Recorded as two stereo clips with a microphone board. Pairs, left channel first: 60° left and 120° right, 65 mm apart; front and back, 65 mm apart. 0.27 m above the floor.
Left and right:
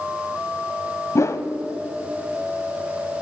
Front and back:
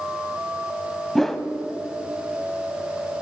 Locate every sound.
1.1 s a whoosh: 85° left, 0.6 m